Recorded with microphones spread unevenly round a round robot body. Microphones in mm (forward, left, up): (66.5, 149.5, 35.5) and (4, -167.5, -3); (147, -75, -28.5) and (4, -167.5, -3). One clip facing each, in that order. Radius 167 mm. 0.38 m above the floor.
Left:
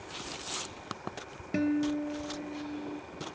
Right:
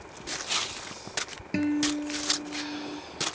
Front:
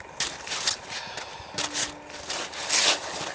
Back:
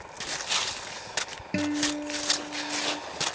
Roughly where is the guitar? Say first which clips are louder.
Right 2 dB, back 12 dB; behind.